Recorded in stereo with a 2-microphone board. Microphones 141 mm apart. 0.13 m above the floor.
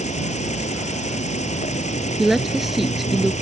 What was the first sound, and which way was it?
An insect, 55° left (ahead or behind).